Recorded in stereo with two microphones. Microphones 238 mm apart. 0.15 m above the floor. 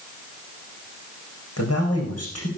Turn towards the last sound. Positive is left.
turn(degrees=75)  # may be behind; listen again after turning